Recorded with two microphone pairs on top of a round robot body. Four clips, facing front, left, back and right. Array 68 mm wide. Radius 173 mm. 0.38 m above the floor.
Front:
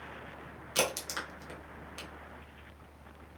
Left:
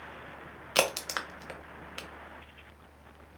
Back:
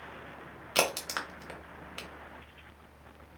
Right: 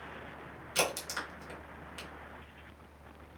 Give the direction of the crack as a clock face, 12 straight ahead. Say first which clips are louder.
Left 4 dB, back 3 dB; 8 o'clock.